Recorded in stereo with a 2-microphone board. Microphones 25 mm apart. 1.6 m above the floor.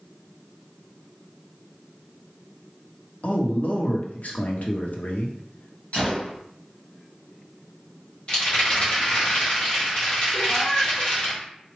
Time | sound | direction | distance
3.2 | a man speaking | 65° left (ahead or behind) | 0.8 m
5.9 | a gunshot | 55° left (ahead or behind) | 1.7 m
8.3 | a rattle | 40° left (ahead or behind) | 2 m
10.3 | a cat meowing | 30° left (ahead or behind) | 1.6 m